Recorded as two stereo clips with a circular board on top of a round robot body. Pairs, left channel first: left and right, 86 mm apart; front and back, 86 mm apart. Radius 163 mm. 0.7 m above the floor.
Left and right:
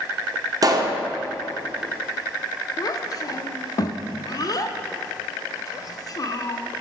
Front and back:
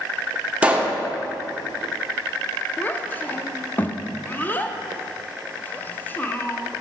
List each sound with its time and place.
0.6 s a pop: 110° right, 0.8 m
2.8 s a child speaking: 65° left, 0.5 m